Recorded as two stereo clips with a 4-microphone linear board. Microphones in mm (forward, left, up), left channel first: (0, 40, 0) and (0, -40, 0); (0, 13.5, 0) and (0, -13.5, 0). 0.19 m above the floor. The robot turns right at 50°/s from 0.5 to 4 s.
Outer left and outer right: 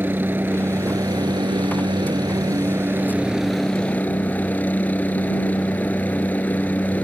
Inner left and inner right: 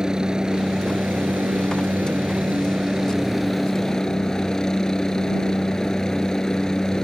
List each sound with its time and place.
0.0 s a helicopter: 150° right; by 7.0 s 25° left